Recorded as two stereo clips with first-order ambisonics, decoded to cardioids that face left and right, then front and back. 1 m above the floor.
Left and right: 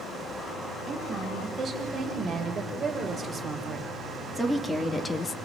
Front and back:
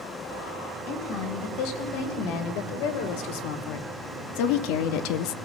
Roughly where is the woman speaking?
Ahead.